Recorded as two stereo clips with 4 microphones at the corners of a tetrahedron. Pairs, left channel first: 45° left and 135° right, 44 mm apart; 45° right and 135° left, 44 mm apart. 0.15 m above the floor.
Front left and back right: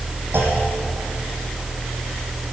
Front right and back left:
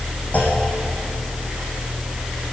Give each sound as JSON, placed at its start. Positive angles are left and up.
{"t": 0.3, "sound": "a clunk", "azimuth_deg": -100, "distance_m": 3.5}